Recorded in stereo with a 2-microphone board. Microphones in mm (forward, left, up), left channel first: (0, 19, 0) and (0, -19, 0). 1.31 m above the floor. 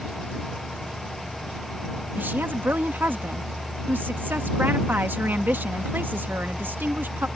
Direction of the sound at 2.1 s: 60° right (ahead or behind).